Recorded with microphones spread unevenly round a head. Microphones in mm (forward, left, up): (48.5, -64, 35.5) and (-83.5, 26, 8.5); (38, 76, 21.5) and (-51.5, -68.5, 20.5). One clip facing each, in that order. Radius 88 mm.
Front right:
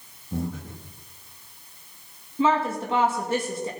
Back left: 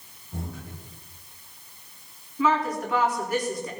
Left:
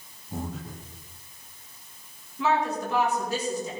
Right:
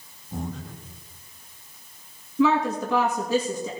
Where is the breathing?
25° right, 1.7 m.